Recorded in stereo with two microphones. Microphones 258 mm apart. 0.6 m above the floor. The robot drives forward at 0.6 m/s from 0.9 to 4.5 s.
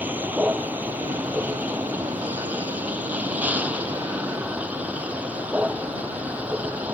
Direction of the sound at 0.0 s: 5° right (ahead or behind).